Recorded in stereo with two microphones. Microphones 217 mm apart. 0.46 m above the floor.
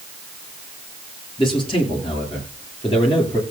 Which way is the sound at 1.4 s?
25° left (ahead or behind).